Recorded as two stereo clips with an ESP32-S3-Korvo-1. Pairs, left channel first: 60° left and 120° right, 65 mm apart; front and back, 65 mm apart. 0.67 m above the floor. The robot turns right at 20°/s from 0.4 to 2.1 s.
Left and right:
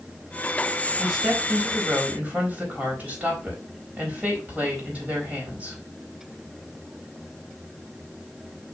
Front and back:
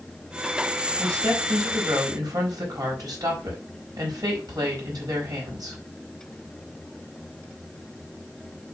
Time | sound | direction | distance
1.0 | a woman speaking | 150° left | 4 m